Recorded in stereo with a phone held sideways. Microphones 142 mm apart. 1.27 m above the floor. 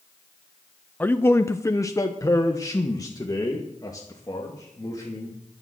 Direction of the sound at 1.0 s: 15° left (ahead or behind).